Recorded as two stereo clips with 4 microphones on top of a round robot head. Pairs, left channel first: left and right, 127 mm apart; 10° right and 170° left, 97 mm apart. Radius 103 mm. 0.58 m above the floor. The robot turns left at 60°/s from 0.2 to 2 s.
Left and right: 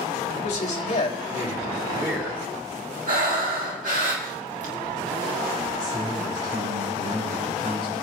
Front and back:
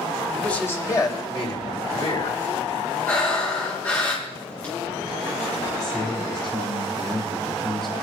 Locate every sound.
0.3 s a man speaking: 80° left, 3.5 m; by 2.4 s 20° right, 3.5 m
3.1 s breathing: 80° right, 3.5 m
5.8 s a man speaking: 95° right, 7.5 m